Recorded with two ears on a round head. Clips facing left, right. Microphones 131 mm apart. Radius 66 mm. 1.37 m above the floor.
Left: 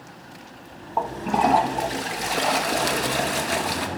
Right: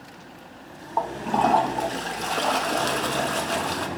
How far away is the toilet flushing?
About 0.9 m.